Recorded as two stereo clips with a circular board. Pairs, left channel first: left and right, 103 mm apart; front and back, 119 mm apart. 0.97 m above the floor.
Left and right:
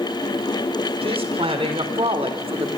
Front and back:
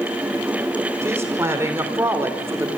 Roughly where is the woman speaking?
Right.